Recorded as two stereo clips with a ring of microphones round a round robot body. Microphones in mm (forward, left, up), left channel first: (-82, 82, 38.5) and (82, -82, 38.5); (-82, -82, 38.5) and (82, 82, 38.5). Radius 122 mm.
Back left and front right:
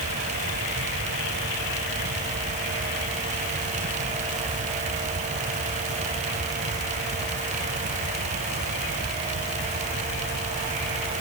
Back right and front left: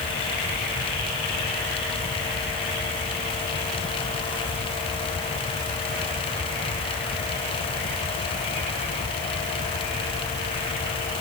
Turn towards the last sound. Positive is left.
No sound to turn to.